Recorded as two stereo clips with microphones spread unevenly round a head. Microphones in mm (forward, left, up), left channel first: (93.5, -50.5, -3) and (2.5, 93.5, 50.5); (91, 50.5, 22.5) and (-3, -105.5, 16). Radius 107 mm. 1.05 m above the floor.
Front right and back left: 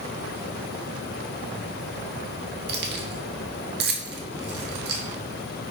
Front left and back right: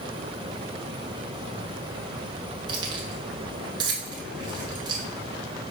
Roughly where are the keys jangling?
Behind.